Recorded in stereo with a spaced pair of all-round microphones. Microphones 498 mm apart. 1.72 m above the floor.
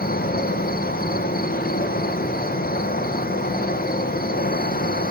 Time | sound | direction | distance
0.0 | an insect | 20° left (ahead or behind) | 0.8 m